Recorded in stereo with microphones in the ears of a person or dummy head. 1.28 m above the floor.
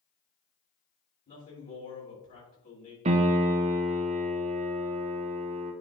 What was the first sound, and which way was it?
A man speaking, 40° left (ahead or behind).